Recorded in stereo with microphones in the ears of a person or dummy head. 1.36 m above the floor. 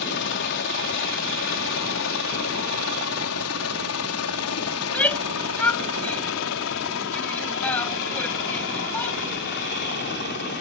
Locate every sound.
0.0 s a helicopter: 55° left (ahead or behind)
4.8 s a shout: 10° left (ahead or behind)